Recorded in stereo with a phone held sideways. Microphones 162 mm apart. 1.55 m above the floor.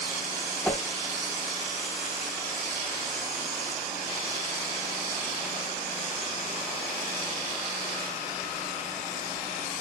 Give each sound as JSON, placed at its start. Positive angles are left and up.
{"t": 0.6, "sound": "a whoosh", "side_deg": 5, "distance_m": 1.0}